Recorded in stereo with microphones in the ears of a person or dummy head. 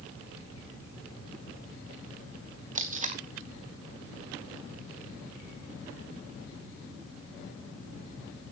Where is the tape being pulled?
35° right (ahead or behind), 1.2 m.